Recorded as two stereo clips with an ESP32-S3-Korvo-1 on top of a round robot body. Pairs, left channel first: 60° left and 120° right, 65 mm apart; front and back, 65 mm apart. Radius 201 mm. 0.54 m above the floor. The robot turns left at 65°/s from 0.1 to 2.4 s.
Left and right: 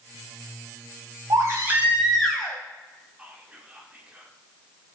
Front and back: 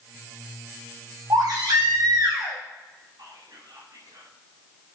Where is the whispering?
170° left, 2.5 m.